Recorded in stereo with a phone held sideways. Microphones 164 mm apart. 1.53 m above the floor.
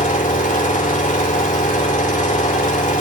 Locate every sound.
0.0 s an engine running: 50° left (ahead or behind), 3 m